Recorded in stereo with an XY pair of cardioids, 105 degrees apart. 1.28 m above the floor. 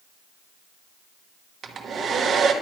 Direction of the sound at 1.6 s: 55° right.